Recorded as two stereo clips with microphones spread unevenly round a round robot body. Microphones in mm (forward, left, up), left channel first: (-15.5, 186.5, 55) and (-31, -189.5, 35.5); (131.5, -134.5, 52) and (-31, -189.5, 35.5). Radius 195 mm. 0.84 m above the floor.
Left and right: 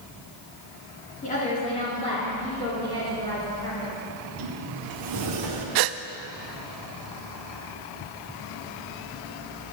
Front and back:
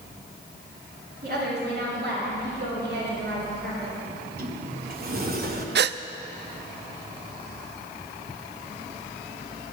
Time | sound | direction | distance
1.2 | a woman speaking | 160° left | 2.5 m
4.1 | a sliding door | 130° right | 1.6 m
5.8 | a gasp | 130° right | 0.5 m